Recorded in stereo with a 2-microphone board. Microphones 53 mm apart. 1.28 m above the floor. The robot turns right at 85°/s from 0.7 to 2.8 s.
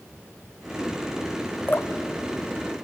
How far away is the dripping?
About 0.6 m.